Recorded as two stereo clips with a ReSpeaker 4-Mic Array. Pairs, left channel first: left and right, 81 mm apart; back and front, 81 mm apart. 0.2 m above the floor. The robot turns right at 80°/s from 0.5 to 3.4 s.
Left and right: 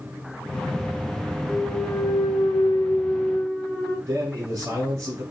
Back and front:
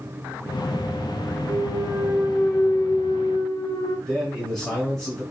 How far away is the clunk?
About 0.5 m.